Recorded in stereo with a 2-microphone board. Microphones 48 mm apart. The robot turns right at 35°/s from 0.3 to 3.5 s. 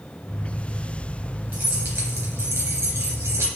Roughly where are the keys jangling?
Behind right.